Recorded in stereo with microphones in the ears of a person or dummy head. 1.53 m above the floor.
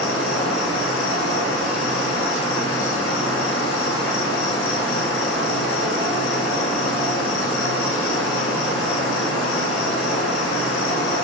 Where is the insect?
85° left, 1.3 m.